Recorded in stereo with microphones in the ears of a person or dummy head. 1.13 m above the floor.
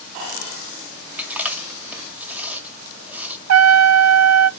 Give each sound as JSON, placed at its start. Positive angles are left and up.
{"t": 1.2, "sound": "chewing", "side_deg": -5, "distance_m": 1.7}
{"t": 3.5, "sound": "a trumpet", "side_deg": -80, "distance_m": 0.6}